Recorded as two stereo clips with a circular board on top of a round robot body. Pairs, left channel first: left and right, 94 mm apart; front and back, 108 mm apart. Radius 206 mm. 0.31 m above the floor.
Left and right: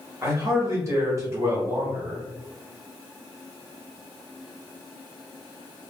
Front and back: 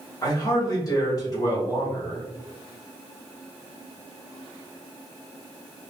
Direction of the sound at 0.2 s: 40° right.